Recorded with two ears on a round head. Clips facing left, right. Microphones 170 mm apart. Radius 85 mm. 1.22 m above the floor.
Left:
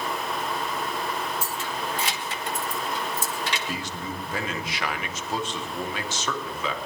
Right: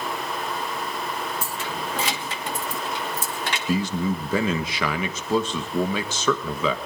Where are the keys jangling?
45° right (ahead or behind), 1.1 m.